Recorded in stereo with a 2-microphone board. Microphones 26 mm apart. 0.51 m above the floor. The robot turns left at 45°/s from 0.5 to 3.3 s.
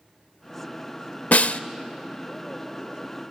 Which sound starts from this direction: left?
A snare drum, at 1.3 s.